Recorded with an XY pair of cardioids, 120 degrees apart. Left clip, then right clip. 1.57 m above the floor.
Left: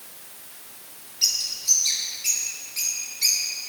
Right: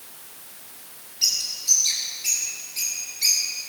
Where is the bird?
Straight ahead, 4 m.